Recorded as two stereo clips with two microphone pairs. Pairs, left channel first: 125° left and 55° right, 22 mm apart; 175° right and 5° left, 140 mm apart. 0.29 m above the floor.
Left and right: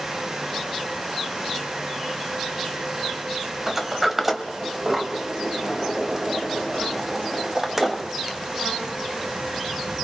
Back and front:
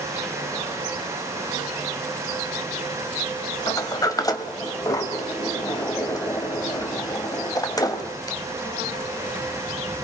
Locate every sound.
3.7 s a sliding door: 125° right, 1.6 m